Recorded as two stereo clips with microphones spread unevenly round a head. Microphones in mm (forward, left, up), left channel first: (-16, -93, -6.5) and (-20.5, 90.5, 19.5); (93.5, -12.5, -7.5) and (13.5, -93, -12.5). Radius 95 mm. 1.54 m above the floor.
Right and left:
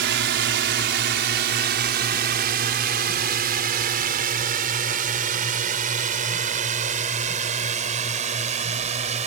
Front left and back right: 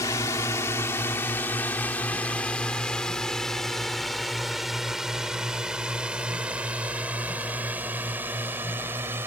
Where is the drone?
120° left; by 9.3 s 145° left.